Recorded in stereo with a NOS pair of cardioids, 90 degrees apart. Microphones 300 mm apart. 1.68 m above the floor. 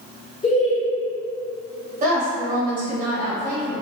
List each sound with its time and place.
0.4 s laughter: 20° left, 1.2 m
2.0 s a woman speaking: 30° right, 1.5 m